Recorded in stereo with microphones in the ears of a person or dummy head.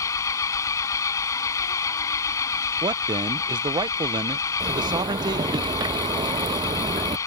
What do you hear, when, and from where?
0.0 s an engine running: 15° left (ahead or behind)
2.8 s a man speaking: 20° right (ahead or behind)
4.6 s a zipper: 25° right (ahead or behind)